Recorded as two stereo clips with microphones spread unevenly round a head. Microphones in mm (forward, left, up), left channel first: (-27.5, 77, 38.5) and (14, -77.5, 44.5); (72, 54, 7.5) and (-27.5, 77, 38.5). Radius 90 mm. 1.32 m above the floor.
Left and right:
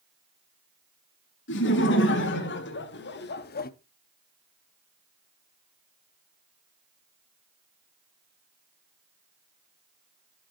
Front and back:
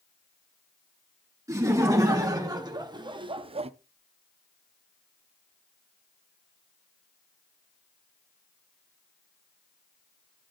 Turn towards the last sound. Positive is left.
turn(degrees=130)